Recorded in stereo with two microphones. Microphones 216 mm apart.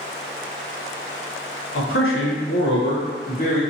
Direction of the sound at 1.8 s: 70° left (ahead or behind).